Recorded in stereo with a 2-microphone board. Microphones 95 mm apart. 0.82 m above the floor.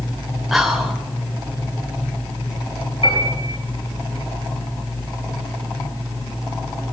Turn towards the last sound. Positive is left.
turn(degrees=75)  # may be behind; listen again after turning